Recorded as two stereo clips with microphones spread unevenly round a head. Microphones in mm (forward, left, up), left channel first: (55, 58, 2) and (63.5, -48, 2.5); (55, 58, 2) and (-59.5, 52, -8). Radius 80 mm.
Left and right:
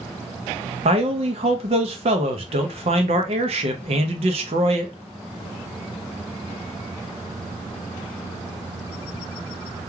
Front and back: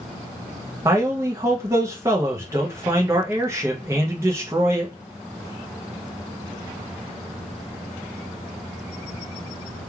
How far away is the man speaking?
About 0.5 m.